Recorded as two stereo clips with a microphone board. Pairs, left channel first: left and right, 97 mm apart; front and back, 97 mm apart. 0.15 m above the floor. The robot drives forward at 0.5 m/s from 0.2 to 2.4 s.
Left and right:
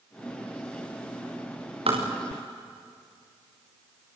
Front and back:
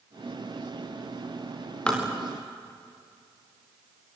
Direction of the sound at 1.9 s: 80° right.